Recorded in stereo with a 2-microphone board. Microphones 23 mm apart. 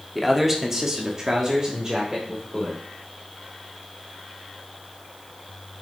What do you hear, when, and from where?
0.1 s a man speaking: 5° right (ahead or behind), 1.6 m; by 2.8 s 25° right (ahead or behind), 3 m